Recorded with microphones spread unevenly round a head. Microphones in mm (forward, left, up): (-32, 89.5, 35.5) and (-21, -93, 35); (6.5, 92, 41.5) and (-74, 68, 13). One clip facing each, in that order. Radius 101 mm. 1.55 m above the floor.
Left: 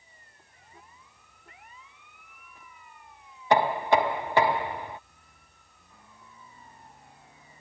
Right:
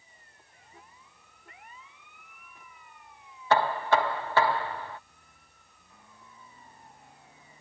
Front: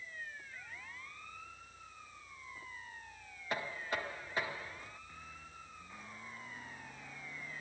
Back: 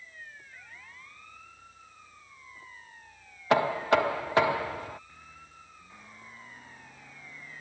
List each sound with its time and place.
3.5 s knocking: 170° left